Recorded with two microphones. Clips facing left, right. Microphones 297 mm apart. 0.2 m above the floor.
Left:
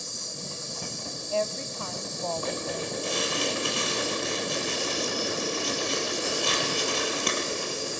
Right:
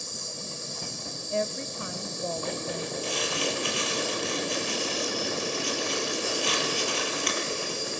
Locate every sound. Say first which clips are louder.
0.0 s an insect: even; 25° left (ahead or behind), 7.5 m
1.3 s a woman speaking: even; 20° right (ahead or behind), 1.0 m
3.0 s crumpling: left 1 dB; 50° left (ahead or behind), 5.5 m